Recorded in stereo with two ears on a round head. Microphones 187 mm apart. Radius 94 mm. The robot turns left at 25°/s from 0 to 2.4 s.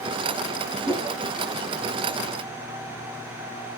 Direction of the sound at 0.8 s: 5° right (ahead or behind).